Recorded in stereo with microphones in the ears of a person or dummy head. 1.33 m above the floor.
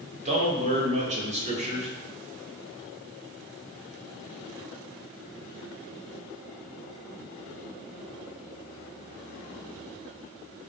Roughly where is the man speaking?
Right.